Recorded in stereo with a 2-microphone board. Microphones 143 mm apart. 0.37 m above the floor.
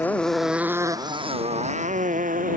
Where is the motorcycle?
15° left (ahead or behind); by 2.6 s 75° right (ahead or behind).